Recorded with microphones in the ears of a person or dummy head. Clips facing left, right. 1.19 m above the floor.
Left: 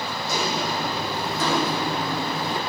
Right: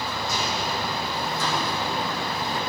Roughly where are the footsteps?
Left.